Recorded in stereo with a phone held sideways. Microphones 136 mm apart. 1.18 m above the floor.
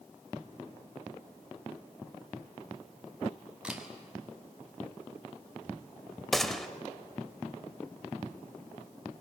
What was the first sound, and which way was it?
A camera shutter, 5° right (ahead or behind).